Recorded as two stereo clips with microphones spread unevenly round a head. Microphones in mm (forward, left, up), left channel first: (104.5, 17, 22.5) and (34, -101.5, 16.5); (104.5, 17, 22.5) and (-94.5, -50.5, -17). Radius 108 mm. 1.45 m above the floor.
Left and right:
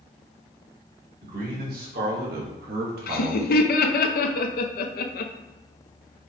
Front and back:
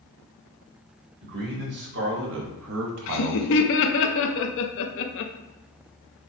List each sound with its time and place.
1.2 s a man speaking: 120° right, 1.8 m; by 3.5 s 170° right, 0.6 m
3.1 s laughter: 55° left, 0.6 m